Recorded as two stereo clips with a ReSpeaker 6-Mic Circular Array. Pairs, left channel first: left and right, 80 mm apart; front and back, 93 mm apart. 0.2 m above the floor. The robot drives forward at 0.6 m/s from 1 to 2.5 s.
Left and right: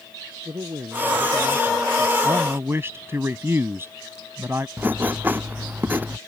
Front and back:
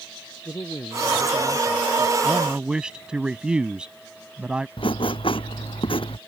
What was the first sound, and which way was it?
A man speaking, 60° right.